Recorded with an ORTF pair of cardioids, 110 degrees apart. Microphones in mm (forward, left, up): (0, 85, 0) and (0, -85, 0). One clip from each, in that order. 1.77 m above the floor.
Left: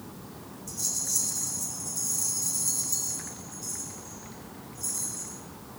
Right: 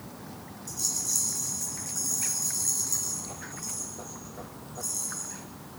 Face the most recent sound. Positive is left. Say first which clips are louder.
# right 1 dB
turn(degrees=0)